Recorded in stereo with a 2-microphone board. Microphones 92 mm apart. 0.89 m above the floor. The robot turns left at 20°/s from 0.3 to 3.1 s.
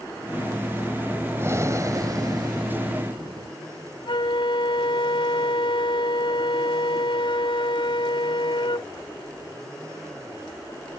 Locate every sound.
1.4 s breathing: 30° right; by 3.6 s 65° right
4.1 s a flute: 70° left (ahead or behind)